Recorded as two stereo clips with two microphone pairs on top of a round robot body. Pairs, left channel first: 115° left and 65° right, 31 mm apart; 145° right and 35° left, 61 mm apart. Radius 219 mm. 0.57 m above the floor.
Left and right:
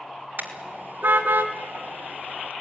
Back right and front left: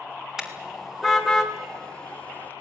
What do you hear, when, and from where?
0.4 s a car horn: 45° right, 2.5 m; by 2.5 s 80° right, 1.8 m